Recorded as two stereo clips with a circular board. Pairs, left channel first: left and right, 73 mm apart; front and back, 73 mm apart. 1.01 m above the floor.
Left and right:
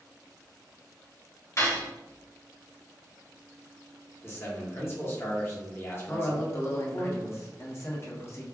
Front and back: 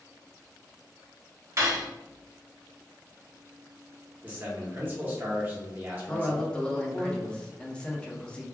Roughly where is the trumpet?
No trumpet in this recording.